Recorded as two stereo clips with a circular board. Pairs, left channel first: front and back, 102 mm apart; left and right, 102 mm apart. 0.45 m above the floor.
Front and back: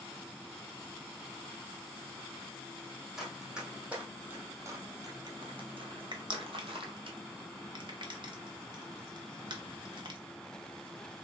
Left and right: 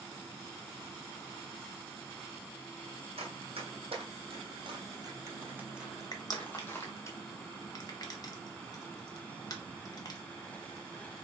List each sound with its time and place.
3.2 s running footsteps: 95° right, 1.4 m; by 7.1 s 150° left, 1.1 m
6.1 s crushing: 140° left, 0.8 m